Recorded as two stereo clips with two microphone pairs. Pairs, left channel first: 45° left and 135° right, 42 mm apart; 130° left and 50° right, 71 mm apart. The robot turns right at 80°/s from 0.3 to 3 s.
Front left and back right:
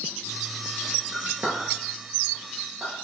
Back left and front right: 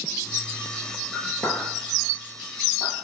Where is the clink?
160° left, 1.4 m; by 2.9 s 55° right, 1.4 m.